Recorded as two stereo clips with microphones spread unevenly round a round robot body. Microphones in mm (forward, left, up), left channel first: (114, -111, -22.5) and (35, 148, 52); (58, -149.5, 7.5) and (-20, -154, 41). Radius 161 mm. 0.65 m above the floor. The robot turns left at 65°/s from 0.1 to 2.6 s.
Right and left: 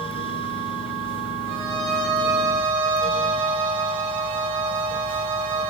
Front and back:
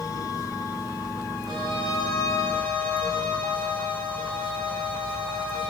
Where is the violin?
Straight behind, 6.5 m; by 5.7 s 110° left, 6.5 m.